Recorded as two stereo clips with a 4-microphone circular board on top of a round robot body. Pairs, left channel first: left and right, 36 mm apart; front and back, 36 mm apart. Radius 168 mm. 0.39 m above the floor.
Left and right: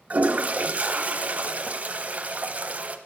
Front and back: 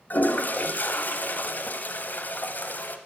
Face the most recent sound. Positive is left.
turn(degrees=-45)